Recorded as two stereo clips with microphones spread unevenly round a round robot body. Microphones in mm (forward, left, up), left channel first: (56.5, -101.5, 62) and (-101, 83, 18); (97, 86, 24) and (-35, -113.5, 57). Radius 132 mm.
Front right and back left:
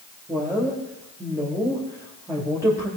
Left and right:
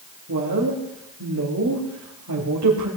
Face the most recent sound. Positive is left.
turn(degrees=-155)